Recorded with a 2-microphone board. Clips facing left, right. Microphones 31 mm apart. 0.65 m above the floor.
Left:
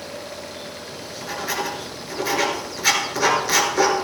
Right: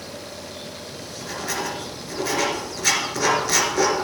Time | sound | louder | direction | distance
0.9 | writing | left 3 dB | 10° left (ahead or behind) | 2 m